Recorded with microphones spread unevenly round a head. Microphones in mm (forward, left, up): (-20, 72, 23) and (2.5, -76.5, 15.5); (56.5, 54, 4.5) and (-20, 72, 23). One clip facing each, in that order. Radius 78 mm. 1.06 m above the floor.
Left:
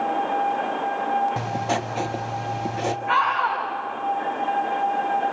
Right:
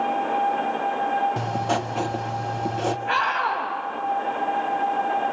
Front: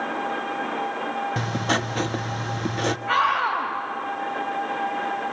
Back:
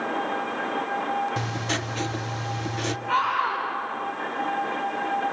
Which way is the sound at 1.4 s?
15° left.